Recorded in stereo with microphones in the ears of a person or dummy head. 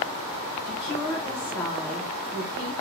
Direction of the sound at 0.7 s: 10° left (ahead or behind).